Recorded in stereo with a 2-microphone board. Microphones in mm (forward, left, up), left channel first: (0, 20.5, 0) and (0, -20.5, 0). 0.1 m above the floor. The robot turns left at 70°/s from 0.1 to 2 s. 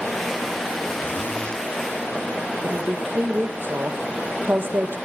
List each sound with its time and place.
1.0 s a zipper: 60° left, 5.5 m; by 1.6 s 20° left, 5.5 m
2.6 s a woman speaking: 60° right (ahead or behind), 4 m